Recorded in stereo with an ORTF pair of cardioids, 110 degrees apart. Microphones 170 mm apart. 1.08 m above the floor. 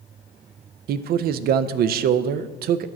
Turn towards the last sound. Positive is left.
turn(degrees=-65)